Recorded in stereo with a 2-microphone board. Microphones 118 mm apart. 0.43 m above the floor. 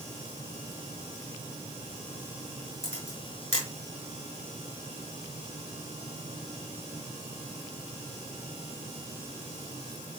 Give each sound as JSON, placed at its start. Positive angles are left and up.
{"t": 2.8, "sound": "a camera shutter", "side_deg": 60, "distance_m": 4.5}